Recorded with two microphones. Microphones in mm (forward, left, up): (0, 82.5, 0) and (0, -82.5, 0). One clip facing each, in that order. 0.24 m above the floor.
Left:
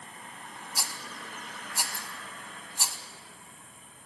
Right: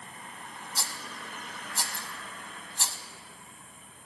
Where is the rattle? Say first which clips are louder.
Even; 10° left (ahead or behind), 1.4 m.